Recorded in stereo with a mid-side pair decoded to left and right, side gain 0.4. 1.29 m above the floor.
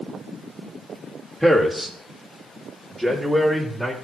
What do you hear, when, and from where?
1.4 s a man speaking: 10° right, 2 m; by 3.9 s 15° right, 4 m